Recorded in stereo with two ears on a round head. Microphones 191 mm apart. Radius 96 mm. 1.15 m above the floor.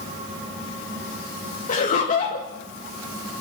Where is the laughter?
40° left (ahead or behind), 2.0 m.